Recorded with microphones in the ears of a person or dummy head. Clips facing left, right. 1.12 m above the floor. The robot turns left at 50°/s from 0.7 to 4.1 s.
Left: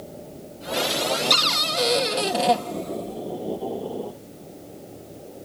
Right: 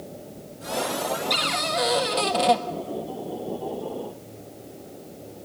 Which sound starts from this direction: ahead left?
A cupboard door, at 1.3 s.